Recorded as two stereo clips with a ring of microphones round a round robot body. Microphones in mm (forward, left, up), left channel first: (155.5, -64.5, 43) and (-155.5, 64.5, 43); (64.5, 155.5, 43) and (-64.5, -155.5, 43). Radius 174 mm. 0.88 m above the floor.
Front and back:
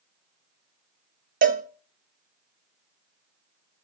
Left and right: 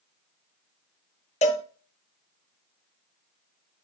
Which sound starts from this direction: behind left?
A cowbell, at 1.4 s.